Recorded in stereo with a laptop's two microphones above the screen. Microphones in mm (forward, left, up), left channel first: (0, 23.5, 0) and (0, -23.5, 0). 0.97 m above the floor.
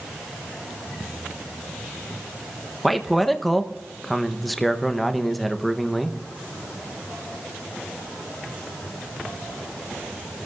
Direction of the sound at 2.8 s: Centre (ahead or behind).